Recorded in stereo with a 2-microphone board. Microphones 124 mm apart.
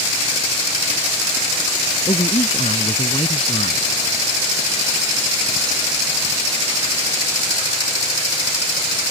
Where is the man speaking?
50° left (ahead or behind).